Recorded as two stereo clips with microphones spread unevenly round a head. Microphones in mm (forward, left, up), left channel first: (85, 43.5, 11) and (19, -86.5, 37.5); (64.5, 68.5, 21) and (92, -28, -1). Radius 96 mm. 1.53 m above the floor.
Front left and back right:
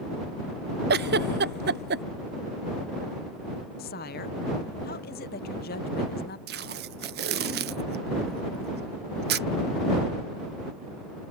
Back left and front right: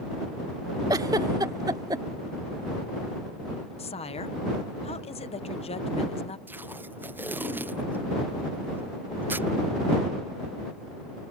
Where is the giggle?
130° right.